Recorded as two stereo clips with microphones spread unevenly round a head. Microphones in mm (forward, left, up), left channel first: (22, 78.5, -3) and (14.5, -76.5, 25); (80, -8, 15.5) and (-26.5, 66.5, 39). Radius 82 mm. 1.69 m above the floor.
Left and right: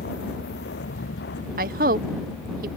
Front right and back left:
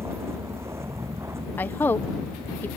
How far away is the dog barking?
No dog barking in this recording.